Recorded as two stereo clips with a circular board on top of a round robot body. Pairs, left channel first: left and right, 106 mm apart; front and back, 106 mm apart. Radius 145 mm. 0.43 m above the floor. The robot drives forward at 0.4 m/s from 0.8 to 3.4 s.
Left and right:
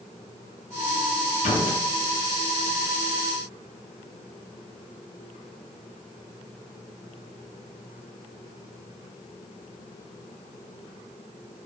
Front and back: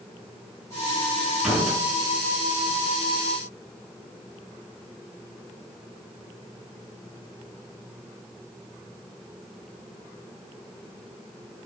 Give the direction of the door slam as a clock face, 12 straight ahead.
9 o'clock.